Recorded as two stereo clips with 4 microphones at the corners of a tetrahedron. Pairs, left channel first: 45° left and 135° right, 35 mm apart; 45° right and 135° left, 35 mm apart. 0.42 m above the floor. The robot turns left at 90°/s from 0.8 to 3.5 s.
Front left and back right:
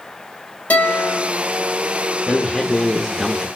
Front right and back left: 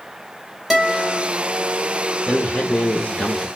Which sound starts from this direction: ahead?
A man speaking, at 2.3 s.